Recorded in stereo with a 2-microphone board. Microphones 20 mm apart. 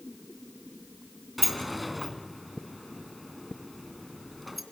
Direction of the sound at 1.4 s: 5° right (ahead or behind).